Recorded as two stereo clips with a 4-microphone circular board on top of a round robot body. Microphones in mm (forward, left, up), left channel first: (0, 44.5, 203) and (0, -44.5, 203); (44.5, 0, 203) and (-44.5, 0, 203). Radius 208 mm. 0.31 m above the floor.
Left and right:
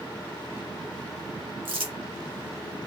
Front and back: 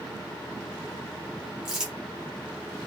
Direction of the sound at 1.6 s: 100° right.